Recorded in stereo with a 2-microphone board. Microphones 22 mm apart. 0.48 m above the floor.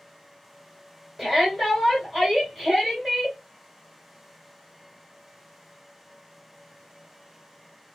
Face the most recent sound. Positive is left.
turn(degrees=-5)  # may be behind; listen again after turning